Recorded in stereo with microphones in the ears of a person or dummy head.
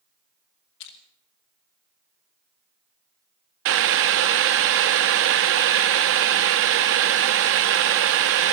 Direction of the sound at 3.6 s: 65° right (ahead or behind).